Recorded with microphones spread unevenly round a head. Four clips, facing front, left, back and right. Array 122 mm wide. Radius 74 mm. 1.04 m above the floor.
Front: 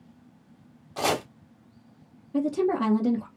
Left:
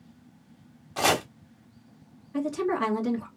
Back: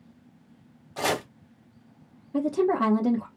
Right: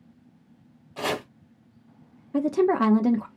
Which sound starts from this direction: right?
A woman speaking, at 2.3 s.